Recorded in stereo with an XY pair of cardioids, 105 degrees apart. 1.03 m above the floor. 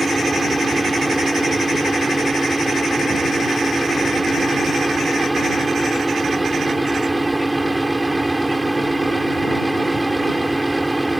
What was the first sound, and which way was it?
A fan, 10° right.